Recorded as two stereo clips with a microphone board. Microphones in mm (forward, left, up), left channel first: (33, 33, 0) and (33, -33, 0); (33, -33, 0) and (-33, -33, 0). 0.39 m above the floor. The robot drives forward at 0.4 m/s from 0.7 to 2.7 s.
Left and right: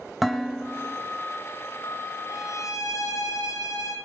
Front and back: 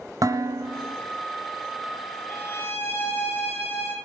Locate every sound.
0.2 s dishes clattering: straight behind, 1.4 m
2.3 s a violin: 60° left, 9 m